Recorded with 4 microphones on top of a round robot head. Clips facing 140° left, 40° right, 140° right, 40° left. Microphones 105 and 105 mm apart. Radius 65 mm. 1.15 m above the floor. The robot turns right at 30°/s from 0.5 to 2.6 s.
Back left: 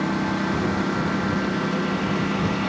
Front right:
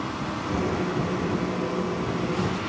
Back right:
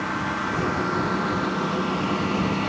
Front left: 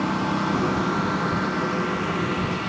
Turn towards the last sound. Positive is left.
turn(degrees=170)